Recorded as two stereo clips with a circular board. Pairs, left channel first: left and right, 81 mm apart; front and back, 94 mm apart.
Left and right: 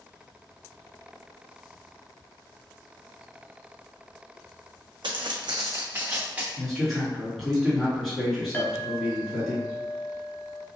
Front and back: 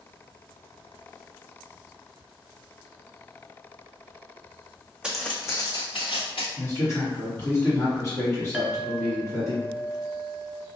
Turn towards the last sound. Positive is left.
turn(degrees=110)